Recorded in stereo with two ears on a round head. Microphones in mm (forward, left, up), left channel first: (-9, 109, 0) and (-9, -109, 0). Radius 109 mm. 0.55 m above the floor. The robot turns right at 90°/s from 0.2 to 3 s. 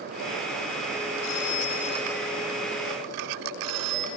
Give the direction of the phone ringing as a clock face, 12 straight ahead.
9 o'clock.